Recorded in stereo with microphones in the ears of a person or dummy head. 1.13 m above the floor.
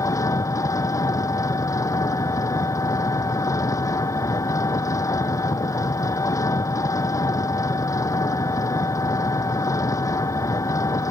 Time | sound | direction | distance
0.0 | an engine running | 15° left (ahead or behind) | ?